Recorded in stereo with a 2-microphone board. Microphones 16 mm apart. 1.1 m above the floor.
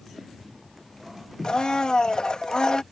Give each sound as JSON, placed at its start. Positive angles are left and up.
{"t": 1.4, "sound": "a blender", "side_deg": 70}